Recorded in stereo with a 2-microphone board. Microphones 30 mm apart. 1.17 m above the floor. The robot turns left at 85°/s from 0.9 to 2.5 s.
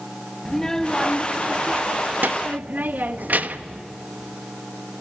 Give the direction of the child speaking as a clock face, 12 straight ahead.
11 o'clock.